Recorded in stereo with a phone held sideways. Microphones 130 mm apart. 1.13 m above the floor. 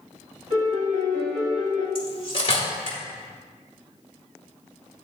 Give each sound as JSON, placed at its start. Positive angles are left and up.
{"t": 0.5, "sound": "a piano", "side_deg": -65, "distance_m": 2.5}
{"t": 1.9, "sound": "cutlery clinking", "side_deg": 45, "distance_m": 1.7}